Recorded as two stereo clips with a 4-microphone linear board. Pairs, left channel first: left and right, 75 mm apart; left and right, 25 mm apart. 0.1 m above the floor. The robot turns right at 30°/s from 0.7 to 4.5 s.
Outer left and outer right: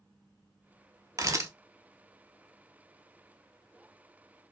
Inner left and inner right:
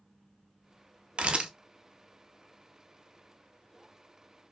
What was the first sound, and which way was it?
A camera shutter, 45° right (ahead or behind).